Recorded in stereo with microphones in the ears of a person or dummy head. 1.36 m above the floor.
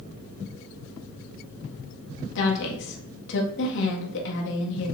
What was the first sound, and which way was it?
A woman speaking, 70° left (ahead or behind).